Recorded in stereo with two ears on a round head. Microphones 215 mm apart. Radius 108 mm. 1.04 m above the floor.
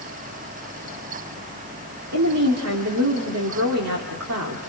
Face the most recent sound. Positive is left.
turn(degrees=-70)  # may be behind; listen again after turning